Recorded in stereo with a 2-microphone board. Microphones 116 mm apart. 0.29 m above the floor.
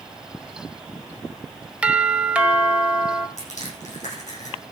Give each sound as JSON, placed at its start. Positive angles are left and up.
{"t": 1.8, "sound": "a doorbell", "side_deg": -10, "distance_m": 1.3}
{"t": 3.4, "sound": "crushing", "side_deg": 75, "distance_m": 8.0}